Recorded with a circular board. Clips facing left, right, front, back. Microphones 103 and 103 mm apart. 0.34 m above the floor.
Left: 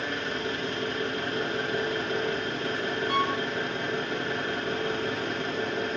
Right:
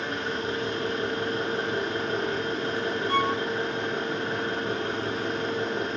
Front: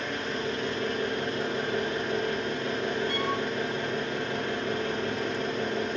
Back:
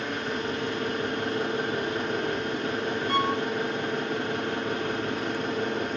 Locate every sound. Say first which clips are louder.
0.0 s an engine running: right 1 dB, back 1 dB; 155° right, 3 m
3.1 s a violin: right 2 dB, back 4 dB; 160° left, 1.8 m